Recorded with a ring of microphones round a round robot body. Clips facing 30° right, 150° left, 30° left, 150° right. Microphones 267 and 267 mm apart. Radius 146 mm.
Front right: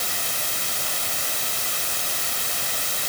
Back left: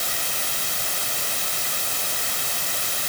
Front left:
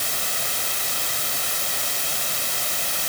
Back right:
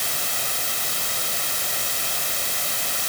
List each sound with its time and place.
Only background noise.